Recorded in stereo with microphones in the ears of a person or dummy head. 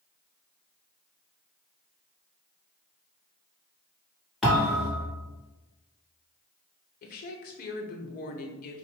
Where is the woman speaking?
45° left (ahead or behind), 0.9 m.